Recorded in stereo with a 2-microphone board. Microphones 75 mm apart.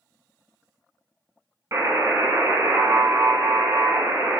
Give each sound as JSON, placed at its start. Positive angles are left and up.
{"t": 1.7, "sound": "a buzzer", "side_deg": -45, "distance_m": 0.9}